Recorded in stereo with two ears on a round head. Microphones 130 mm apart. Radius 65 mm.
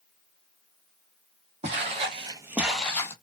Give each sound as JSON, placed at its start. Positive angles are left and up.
{"t": 1.6, "sound": "footsteps", "side_deg": -45, "distance_m": 0.8}